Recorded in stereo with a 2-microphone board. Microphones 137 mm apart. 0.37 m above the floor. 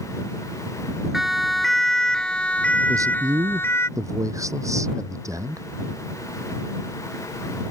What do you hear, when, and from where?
1.1 s a siren: centre (ahead or behind); by 3.9 s 20° left (ahead or behind)
2.9 s a man speaking: 20° right (ahead or behind)